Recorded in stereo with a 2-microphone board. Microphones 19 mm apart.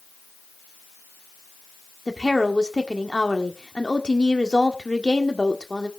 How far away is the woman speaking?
About 1.4 m.